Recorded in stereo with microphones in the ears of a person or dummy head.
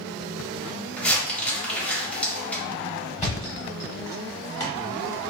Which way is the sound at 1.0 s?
5° left (ahead or behind).